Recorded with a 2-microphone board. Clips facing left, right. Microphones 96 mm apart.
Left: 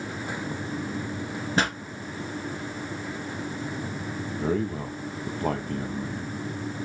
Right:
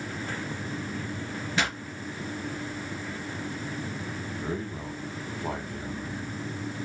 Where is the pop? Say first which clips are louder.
Left 4 dB; 40° left (ahead or behind), 1.8 m.